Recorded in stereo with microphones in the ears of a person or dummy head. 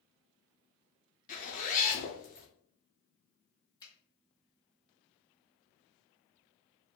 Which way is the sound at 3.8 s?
20° left (ahead or behind).